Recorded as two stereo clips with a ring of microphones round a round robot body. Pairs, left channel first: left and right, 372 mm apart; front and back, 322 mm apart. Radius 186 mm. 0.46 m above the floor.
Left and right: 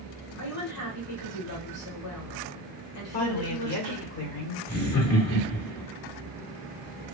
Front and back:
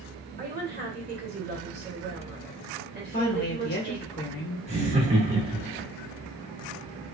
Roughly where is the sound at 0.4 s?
Behind left.